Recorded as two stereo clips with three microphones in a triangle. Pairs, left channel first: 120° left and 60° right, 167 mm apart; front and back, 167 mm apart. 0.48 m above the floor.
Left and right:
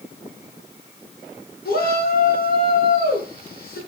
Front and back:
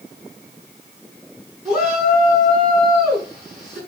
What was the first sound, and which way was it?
A shout, 135° left.